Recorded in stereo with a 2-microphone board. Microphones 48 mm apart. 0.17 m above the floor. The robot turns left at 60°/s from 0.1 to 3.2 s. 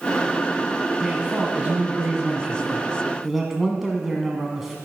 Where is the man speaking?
15° right (ahead or behind), 1.1 m; by 4.8 s 5° right (ahead or behind), 1.1 m.